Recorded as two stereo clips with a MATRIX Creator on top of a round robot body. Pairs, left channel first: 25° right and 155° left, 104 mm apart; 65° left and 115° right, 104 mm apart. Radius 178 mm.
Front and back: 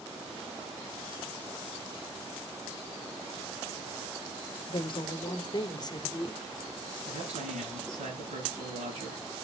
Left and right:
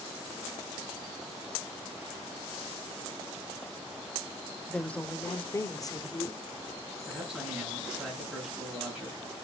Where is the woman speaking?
15° right, 1.1 m; by 6.4 s 30° left, 1.5 m.